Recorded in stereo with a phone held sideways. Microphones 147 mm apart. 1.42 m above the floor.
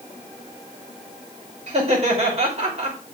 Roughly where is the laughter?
Right.